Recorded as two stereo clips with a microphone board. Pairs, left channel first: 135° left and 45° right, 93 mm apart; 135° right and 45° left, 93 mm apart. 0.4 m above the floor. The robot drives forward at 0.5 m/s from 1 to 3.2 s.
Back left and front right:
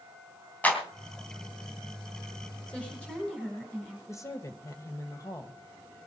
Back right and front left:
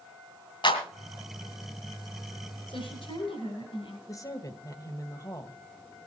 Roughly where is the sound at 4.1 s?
Behind.